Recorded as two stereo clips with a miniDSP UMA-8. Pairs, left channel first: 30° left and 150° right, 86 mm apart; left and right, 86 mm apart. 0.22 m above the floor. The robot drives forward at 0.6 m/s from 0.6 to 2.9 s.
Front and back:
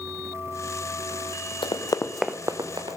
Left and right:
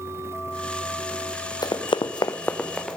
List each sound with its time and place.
1.6 s running footsteps: 50° left, 1.3 m; by 3.0 s straight behind, 1.9 m